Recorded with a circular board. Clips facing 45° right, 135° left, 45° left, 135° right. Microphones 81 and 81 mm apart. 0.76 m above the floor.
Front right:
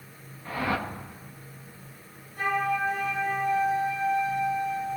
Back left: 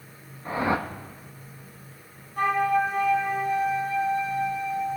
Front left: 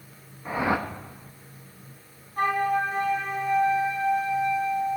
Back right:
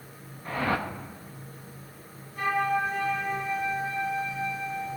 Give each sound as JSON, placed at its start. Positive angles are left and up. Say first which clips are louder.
{"t": 0.5, "sound": "a whoosh", "louder": "back left 3 dB, front left 3 dB", "azimuth_deg": 105, "distance_m": 0.9}
{"t": 2.4, "sound": "a flute", "louder": "back left 4 dB, front left 2 dB", "azimuth_deg": 95, "distance_m": 4.5}